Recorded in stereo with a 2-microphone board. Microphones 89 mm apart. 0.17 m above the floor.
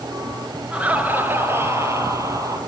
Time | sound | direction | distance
0.7 | laughter | 15° right (ahead or behind) | 3 m